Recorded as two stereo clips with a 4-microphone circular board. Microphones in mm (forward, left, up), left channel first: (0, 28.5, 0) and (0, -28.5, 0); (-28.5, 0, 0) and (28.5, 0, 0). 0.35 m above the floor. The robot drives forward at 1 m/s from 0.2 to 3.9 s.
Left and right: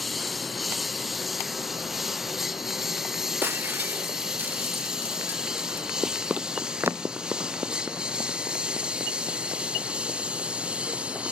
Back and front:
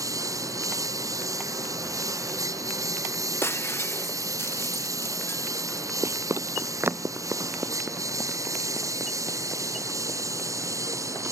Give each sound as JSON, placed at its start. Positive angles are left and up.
{"t": 0.0, "sound": "a lawn mower", "azimuth_deg": 0}
{"t": 3.4, "sound": "breaking glass", "azimuth_deg": -140}
{"t": 6.0, "sound": "running footsteps", "azimuth_deg": -5}